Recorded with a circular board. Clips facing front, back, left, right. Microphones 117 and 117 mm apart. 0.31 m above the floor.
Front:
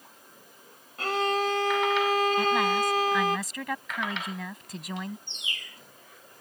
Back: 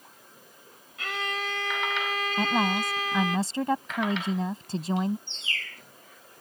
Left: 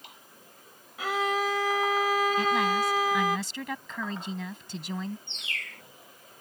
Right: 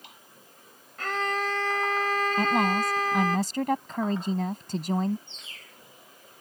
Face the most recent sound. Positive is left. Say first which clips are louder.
# back 3 dB, left 8 dB
turn(degrees=75)